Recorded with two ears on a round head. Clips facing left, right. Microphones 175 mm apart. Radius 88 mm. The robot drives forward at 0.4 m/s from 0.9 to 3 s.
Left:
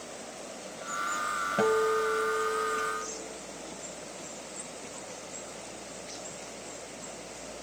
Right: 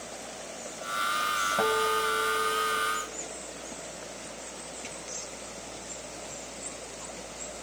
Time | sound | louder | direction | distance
1.6 | a guitar | left 3 dB | 25° left (ahead or behind) | 1.2 m